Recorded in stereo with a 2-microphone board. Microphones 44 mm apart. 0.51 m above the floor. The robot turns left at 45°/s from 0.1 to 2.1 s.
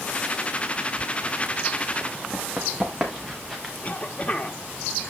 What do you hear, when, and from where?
2.3 s running footsteps: 20° right (ahead or behind), 4 m; by 3.7 s 5° left (ahead or behind), 3.5 m
3.8 s a cough: 30° left (ahead or behind), 1.4 m